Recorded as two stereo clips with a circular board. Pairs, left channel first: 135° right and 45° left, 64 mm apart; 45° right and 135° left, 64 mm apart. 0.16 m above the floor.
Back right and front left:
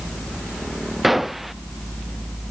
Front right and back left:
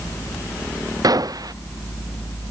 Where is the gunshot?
135° left.